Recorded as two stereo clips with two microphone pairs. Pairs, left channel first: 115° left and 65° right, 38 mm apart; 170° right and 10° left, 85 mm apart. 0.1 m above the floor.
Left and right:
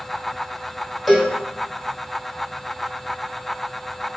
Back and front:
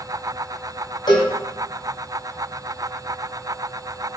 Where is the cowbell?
155° right, 0.9 m.